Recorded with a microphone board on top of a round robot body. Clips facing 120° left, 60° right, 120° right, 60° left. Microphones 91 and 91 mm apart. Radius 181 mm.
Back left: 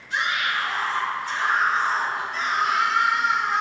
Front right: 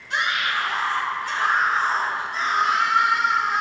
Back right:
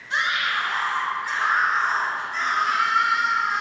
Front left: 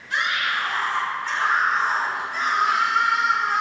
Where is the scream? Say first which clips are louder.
Front right 1 dB, even; 60° right, 2.5 m; by 3.6 s 20° left, 2.0 m.